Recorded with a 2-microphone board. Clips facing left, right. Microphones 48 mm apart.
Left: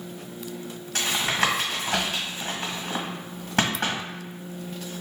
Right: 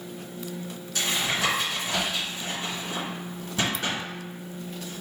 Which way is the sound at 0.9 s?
60° left (ahead or behind).